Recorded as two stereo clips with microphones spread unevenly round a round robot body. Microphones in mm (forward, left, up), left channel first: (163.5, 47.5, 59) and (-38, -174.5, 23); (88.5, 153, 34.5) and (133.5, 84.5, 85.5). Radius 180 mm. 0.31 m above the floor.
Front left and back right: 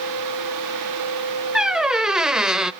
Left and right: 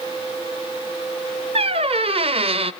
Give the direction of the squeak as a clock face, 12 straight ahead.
2 o'clock.